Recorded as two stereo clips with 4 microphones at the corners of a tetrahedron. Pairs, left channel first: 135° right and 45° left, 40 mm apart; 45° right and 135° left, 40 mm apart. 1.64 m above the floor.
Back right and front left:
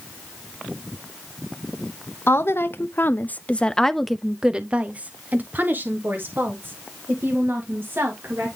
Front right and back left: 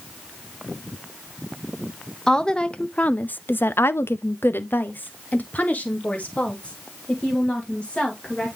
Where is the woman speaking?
120° right, 0.9 m; by 8.6 s 20° left, 2.5 m.